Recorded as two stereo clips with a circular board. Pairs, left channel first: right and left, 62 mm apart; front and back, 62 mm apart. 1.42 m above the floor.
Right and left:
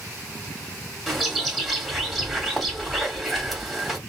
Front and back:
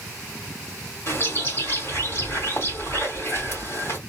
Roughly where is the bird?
Ahead.